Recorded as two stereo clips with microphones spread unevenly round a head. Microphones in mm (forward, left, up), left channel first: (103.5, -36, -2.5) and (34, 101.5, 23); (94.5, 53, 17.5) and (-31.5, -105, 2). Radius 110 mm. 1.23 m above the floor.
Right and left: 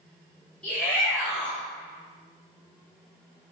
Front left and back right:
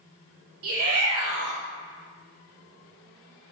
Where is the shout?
150° right, 2.5 m.